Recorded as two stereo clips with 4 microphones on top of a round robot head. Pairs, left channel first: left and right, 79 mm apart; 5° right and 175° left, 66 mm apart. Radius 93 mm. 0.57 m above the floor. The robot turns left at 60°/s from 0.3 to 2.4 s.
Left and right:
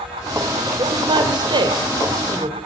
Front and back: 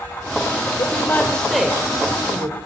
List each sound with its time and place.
0.8 s a woman speaking: 50° right, 3 m; by 2.6 s 150° right, 3 m